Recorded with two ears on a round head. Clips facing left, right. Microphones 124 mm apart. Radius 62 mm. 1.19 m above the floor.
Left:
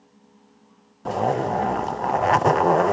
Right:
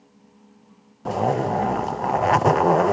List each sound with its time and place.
1.1 s a zipper: centre (ahead or behind), 0.5 m